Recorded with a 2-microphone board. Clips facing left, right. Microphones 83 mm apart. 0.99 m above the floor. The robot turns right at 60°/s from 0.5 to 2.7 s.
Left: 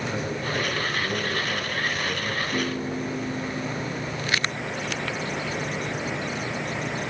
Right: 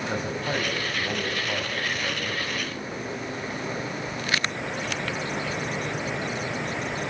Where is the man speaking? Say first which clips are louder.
Even; 130° right, 6.5 m; by 2.4 s 15° right, 6.5 m.